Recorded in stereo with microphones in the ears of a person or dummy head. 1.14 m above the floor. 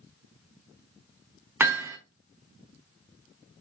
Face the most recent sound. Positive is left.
turn(degrees=-15)  # may be behind; listen again after turning